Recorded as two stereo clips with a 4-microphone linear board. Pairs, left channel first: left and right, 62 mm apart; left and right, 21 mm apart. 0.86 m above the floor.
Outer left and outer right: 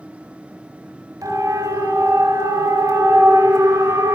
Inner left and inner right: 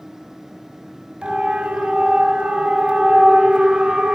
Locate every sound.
1.2 s a siren: 80° right, 5.5 m; by 4.2 s 60° right (ahead or behind), 4 m